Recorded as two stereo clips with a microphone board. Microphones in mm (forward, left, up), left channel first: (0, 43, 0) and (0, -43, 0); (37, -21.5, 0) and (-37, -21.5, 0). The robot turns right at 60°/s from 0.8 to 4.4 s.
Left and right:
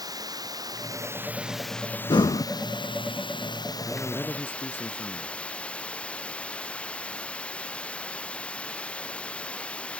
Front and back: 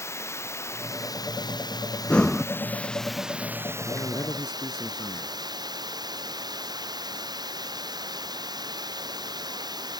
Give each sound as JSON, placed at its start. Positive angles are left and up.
{"t": 0.0, "sound": "running water", "azimuth_deg": -50}
{"t": 2.1, "sound": "breathing", "azimuth_deg": 70}
{"t": 3.9, "sound": "a man speaking", "azimuth_deg": -5}